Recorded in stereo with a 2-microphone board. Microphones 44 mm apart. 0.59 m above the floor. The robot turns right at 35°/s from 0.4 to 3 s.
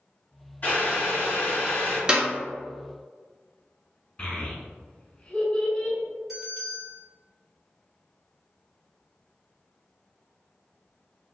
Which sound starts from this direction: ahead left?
Boiling, at 0.6 s.